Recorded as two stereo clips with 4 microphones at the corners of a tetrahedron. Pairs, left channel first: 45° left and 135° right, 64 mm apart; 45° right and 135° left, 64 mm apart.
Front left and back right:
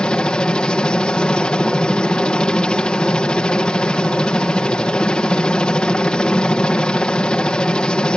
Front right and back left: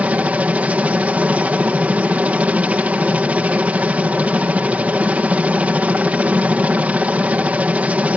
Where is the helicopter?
100° left.